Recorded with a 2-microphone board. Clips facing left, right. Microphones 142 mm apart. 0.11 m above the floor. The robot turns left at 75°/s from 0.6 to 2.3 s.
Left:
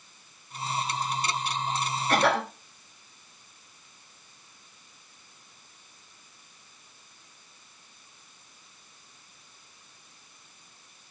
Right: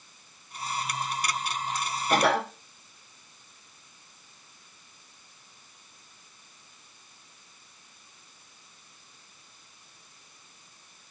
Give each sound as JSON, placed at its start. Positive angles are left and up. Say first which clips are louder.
{"t": 2.1, "sound": "a cough", "louder": "right 1 dB", "side_deg": -15, "distance_m": 1.5}